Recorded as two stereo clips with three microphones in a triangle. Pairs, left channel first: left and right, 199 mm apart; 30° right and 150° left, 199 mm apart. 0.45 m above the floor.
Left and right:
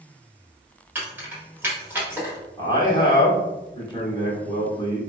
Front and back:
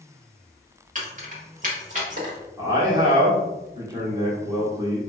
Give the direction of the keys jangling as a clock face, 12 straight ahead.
6 o'clock.